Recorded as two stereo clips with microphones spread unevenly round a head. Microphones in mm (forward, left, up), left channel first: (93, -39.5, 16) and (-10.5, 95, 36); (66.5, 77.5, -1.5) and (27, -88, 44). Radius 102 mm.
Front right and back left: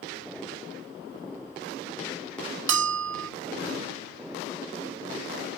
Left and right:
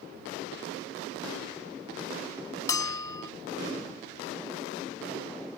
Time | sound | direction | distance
2.7 | a bell | 150° left | ?